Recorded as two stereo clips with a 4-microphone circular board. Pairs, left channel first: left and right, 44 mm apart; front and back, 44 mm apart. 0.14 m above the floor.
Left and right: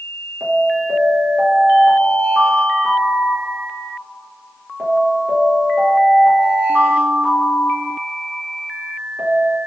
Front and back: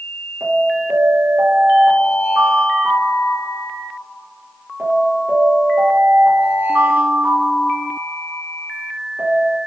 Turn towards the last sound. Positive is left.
turn(degrees=-165)